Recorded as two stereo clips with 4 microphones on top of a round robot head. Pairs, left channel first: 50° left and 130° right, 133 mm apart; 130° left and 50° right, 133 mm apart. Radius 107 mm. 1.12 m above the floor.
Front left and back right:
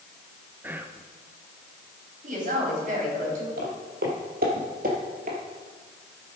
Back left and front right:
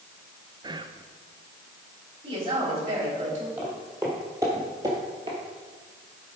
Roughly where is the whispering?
Ahead right.